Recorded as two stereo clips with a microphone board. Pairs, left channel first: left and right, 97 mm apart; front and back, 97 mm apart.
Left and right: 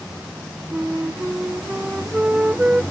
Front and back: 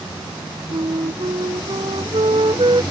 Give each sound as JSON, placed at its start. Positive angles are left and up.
{"t": 0.7, "sound": "a flute", "azimuth_deg": -165}